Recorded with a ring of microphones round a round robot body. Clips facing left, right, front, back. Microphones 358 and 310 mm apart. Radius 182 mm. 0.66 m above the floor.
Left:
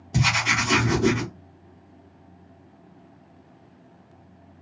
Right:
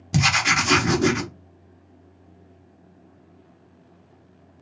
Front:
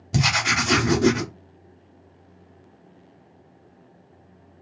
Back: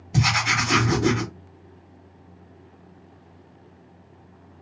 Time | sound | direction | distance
0.1 | writing | 45° right | 1.0 m